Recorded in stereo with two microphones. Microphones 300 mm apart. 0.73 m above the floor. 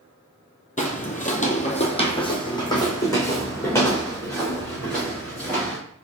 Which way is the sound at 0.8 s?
25° left (ahead or behind).